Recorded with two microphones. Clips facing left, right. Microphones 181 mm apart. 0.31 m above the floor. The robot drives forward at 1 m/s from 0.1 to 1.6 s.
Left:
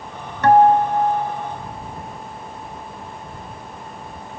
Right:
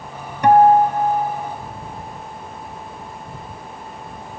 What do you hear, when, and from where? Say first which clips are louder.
0.4 s a guitar: right 1 dB; 15° right (ahead or behind), 1.4 m; by 1.5 s 10° right (ahead or behind), 2.5 m